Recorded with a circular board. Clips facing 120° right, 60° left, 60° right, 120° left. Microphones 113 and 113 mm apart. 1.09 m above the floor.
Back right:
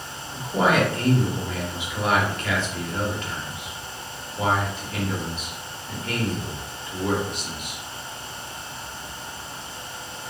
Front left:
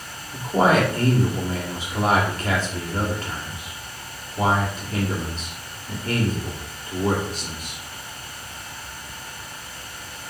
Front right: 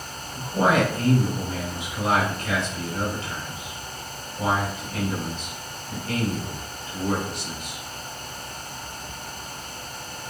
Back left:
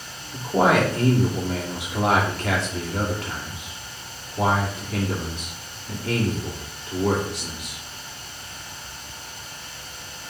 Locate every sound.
0.3 s a man speaking: 110° left, 2 m